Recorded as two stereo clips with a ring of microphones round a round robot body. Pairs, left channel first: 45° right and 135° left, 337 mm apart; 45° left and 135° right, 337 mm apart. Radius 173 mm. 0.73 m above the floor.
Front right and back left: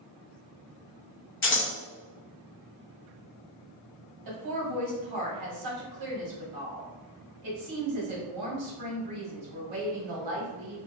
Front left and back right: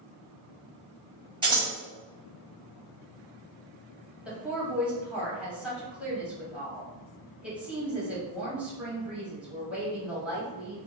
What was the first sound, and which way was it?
Scissors, 65° right.